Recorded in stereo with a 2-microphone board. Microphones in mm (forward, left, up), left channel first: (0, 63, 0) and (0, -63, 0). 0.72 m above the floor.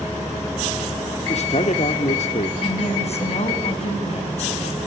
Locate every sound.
1.3 s a man speaking: 60° left (ahead or behind), 2.0 m
2.6 s a woman speaking: 55° left (ahead or behind), 6.5 m